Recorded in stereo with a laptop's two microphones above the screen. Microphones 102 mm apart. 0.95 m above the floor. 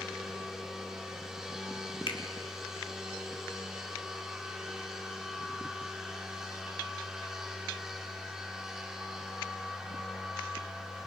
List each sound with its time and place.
0.0 s a machine running: 5° right (ahead or behind), 2.5 m
2.1 s a finger snap: 60° left (ahead or behind), 2 m